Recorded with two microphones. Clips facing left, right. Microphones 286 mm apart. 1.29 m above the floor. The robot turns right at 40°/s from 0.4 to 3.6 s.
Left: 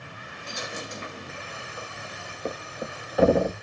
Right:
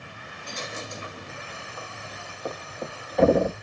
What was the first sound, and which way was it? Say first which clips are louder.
A dropped coin: even; 10° left.